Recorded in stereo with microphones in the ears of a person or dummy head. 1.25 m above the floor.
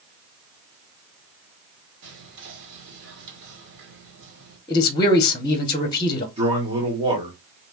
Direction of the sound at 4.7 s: 25° left (ahead or behind).